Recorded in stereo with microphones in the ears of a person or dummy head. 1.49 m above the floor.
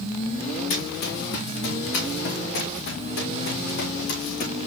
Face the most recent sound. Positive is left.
turn(degrees=65)  # may be behind; listen again after turning